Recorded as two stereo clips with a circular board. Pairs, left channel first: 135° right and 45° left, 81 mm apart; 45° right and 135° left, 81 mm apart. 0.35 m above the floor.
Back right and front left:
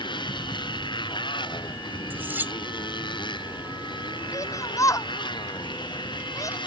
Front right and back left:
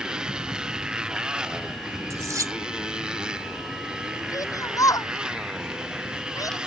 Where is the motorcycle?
145° right.